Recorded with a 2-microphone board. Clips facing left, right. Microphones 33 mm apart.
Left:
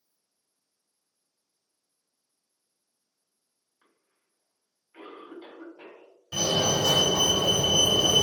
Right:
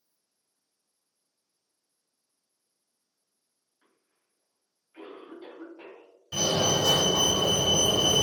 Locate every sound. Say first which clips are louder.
3.8 s a cough: left 1 dB; 20° left (ahead or behind), 2.0 m
6.3 s a fire alarm: even; 10° right (ahead or behind), 1.8 m